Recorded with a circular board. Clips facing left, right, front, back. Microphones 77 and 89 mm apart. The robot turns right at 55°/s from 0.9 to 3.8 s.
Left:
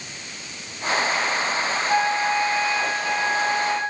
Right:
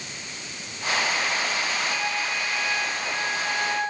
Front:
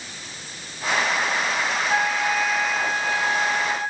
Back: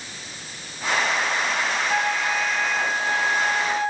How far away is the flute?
About 3.5 m.